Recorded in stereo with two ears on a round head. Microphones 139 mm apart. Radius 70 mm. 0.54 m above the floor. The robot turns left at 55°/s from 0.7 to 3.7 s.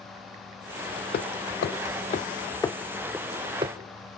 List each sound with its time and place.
1.1 s hammering: 65° left (ahead or behind), 0.7 m; by 3.8 s 35° right (ahead or behind), 0.7 m